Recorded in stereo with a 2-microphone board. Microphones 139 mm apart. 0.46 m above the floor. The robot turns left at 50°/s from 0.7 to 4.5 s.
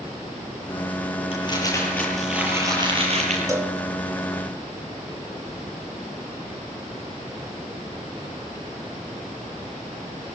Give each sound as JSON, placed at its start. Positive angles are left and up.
{"t": 1.3, "sound": "crumpling", "azimuth_deg": 45, "distance_m": 8.5}
{"t": 3.5, "sound": "a cowbell", "side_deg": -25, "distance_m": 1.7}